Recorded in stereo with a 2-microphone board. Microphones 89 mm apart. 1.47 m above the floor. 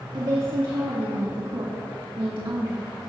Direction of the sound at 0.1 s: 70° right (ahead or behind).